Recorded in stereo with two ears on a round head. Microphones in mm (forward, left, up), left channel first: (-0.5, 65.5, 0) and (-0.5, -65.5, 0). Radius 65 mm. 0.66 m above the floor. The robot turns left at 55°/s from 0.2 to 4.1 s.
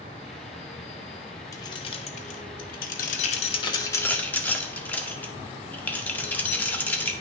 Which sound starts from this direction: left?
Keys jangling, at 1.5 s.